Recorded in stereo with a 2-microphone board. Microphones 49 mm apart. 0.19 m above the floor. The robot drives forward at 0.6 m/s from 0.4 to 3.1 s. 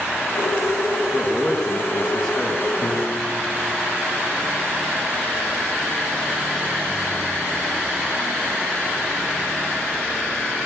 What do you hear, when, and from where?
1.1 s a man speaking: 15° left (ahead or behind), 2.5 m; by 2.7 s 10° left (ahead or behind), 3.5 m
2.8 s a piano: 35° left (ahead or behind), 3.5 m; by 4.4 s 30° left (ahead or behind), 3.5 m